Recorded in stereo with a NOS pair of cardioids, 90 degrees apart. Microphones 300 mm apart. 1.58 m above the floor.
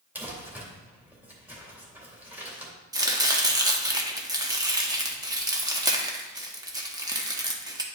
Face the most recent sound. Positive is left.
turn(degrees=-15)